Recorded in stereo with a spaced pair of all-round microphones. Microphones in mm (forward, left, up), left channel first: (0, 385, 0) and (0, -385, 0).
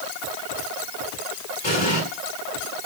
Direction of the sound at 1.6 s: 35° left (ahead or behind).